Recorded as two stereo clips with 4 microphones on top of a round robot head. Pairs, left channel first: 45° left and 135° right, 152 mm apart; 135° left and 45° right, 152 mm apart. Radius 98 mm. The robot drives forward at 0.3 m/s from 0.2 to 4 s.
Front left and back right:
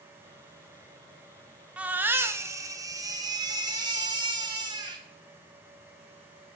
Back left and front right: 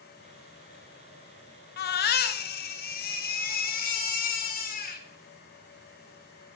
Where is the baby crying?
140° left, 0.6 m; by 5.0 s 165° left, 1.2 m.